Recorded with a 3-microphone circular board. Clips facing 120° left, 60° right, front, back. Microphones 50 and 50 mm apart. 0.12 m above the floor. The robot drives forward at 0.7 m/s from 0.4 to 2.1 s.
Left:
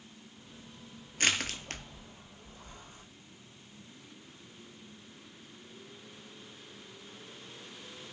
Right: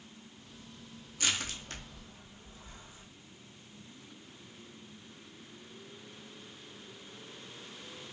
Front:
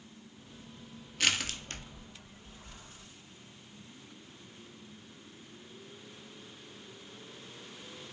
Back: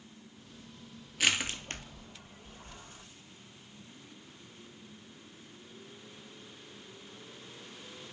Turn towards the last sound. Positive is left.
turn(degrees=145)